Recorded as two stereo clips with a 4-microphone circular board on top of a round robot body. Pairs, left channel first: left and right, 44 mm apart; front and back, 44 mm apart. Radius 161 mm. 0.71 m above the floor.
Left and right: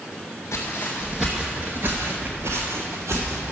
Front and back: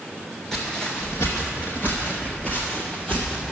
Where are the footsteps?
80° left, 0.8 m; by 3.5 s 70° right, 1.9 m.